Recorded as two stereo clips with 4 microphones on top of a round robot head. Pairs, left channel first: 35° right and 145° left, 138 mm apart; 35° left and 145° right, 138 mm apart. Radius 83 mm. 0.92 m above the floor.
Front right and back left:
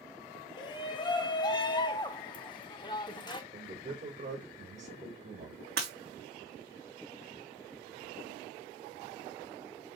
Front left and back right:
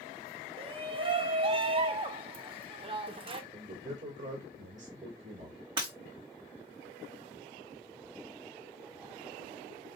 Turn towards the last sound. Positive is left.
turn(degrees=160)